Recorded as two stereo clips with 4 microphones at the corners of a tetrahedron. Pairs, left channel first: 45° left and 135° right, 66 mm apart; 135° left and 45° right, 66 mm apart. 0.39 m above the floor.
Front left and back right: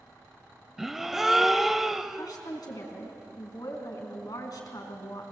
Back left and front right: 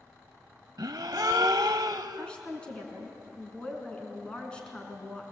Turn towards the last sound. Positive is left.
turn(degrees=60)